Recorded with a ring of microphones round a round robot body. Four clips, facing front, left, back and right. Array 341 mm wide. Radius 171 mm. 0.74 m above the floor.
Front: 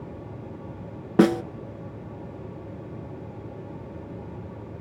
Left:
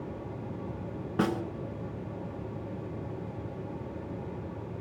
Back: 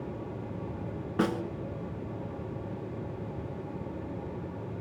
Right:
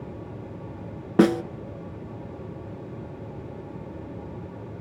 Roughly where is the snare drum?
Ahead right.